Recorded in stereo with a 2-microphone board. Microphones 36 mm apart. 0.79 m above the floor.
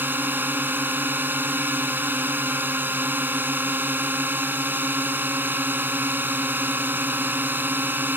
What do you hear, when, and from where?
0.0 s a drone: 70° right (ahead or behind)